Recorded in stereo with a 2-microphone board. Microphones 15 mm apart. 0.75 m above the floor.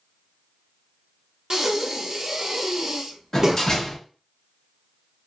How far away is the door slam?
About 1.0 m.